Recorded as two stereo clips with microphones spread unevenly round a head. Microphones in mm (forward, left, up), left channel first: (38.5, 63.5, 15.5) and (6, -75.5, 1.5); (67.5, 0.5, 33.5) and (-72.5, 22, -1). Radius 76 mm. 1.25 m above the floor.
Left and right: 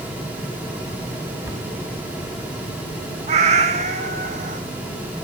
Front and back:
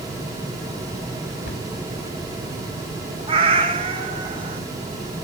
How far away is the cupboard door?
About 3 m.